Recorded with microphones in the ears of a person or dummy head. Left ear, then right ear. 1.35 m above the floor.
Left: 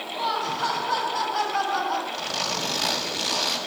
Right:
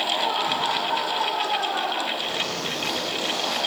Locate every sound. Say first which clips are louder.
0.1 s laughter: right 3 dB; 45° left (ahead or behind), 7.5 m
2.1 s a zipper: right 1 dB; 60° left (ahead or behind), 7 m